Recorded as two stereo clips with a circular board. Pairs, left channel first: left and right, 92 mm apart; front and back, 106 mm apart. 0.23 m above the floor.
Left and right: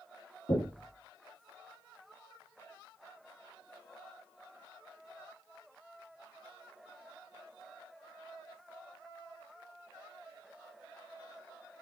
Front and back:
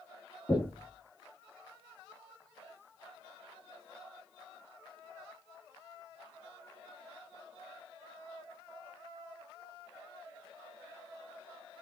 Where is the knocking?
75° left, 3.5 m.